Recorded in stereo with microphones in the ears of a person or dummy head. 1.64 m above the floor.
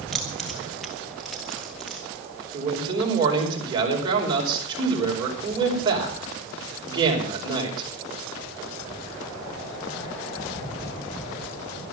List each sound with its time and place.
0.1 s keys jangling: 5° left (ahead or behind), 0.8 m
2.5 s a man speaking: 25° right (ahead or behind), 5 m